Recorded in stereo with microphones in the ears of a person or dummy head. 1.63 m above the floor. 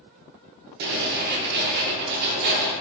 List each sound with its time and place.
0.8 s writing: 60° right (ahead or behind), 1.0 m